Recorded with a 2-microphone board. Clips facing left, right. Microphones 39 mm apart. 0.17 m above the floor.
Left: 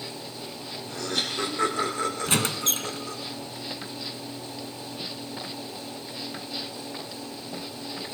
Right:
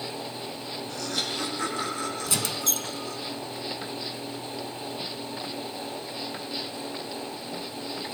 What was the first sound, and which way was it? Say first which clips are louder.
Laughter: left 3 dB; 35° left (ahead or behind).